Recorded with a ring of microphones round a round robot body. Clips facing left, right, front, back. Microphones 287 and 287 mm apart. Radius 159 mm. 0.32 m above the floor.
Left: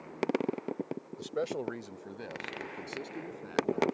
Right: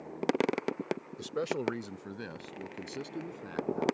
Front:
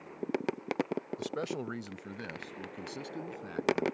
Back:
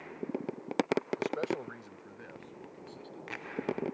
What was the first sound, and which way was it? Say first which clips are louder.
A man speaking: left 2 dB, back 2 dB; 25° right.